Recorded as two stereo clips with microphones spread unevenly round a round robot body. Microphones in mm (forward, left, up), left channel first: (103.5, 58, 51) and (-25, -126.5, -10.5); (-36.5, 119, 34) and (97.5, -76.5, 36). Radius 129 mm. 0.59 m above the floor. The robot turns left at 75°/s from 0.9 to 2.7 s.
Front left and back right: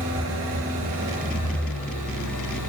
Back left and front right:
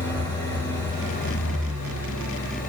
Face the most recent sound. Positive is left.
turn(degrees=65)